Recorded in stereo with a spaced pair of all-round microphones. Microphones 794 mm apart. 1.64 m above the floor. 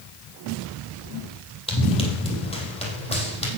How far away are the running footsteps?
About 3 m.